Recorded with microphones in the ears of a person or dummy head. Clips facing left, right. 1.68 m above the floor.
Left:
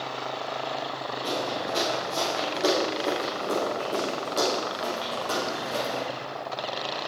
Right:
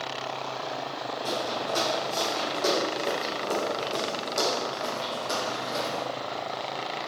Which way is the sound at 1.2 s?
20° left (ahead or behind).